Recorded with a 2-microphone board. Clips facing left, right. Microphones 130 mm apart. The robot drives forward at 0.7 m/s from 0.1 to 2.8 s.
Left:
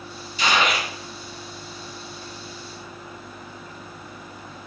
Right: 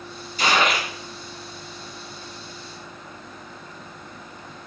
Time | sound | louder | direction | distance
0.4 | a gunshot | right 1 dB | 45° right (ahead or behind) | 3.5 m